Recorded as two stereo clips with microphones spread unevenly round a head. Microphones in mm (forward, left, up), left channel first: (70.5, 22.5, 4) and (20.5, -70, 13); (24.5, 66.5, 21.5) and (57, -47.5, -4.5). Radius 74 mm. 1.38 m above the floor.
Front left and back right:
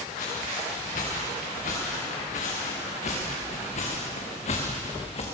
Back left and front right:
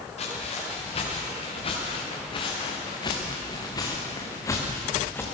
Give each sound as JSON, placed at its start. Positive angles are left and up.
{"t": 0.2, "sound": "footsteps", "azimuth_deg": 80, "distance_m": 7.5}